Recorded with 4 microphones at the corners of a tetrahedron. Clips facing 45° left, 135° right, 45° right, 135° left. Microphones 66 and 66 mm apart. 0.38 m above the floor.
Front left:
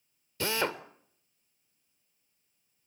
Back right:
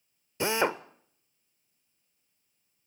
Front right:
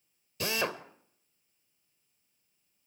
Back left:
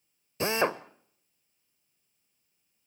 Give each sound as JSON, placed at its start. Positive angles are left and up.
{"t": 0.4, "sound": "a drill", "azimuth_deg": 170, "distance_m": 0.8}